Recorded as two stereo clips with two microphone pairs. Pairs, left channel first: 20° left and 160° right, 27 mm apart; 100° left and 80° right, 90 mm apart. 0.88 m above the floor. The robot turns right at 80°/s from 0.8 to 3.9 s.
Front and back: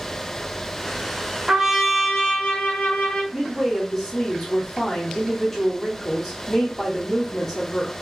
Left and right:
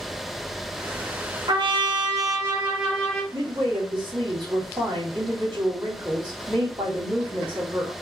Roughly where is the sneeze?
I don't hear a sneeze.